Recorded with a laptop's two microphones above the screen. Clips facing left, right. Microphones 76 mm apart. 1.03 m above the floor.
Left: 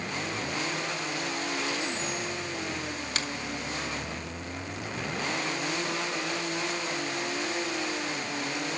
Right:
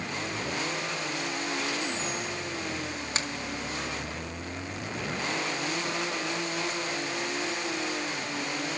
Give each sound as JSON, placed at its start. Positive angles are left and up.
{"t": 3.1, "sound": "a finger snap", "side_deg": -25, "distance_m": 1.8}